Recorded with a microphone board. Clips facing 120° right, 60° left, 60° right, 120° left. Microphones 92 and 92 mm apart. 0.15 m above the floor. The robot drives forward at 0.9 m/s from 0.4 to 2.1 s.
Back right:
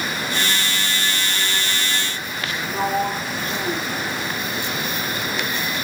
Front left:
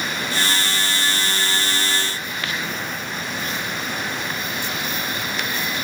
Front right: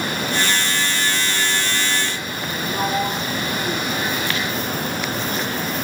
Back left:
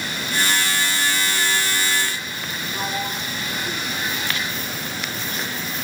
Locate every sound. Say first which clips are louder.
2.7 s a sliding door: back right 8 dB, front right 6 dB; 125° right